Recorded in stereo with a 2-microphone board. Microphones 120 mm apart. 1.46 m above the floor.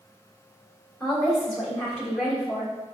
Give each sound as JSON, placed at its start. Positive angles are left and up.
{"t": 1.0, "sound": "a woman speaking", "side_deg": 5, "distance_m": 1.6}